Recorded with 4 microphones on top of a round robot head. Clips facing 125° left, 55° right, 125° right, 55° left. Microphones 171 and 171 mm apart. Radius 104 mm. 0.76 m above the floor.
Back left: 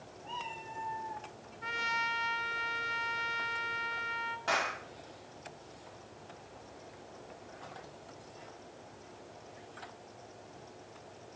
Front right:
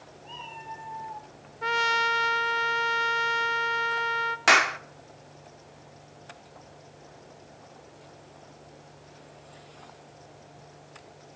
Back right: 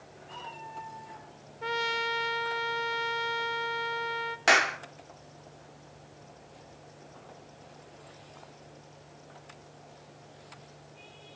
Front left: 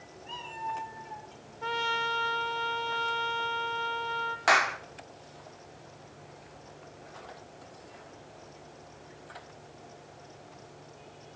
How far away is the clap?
About 1.5 m.